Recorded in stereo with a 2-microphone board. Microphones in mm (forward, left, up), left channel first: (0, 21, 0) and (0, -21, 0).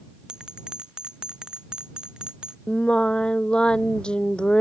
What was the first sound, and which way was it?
A bell, 20° right (ahead or behind).